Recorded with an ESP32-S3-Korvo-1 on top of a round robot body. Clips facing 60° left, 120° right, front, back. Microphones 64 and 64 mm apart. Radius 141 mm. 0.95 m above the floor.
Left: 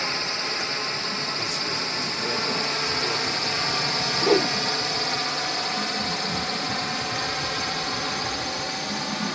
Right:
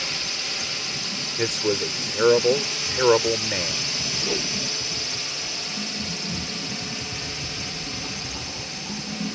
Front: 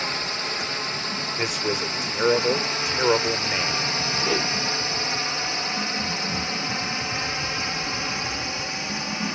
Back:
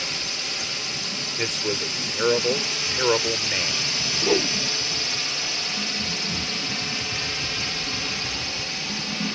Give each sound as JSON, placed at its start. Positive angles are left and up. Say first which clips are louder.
{"t": 0.0, "sound": "a drone", "louder": "left 4 dB, front 4 dB", "azimuth_deg": 25}
{"t": 1.4, "sound": "a man speaking", "louder": "right 5 dB, front 1 dB", "azimuth_deg": -80}
{"t": 4.2, "sound": "a whoosh", "louder": "left 10 dB, back 5 dB", "azimuth_deg": 105}